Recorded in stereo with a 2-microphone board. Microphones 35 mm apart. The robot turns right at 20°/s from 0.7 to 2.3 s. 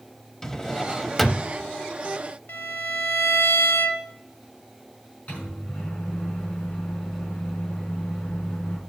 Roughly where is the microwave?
Left.